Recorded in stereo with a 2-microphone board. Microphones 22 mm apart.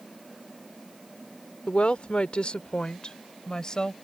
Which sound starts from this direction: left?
A woman speaking, at 1.7 s.